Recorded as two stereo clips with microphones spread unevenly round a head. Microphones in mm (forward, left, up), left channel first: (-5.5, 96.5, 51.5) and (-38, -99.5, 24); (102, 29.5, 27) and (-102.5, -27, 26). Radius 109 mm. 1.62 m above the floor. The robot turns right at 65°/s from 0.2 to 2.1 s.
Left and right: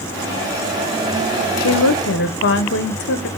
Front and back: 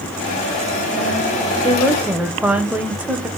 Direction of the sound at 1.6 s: 80° left.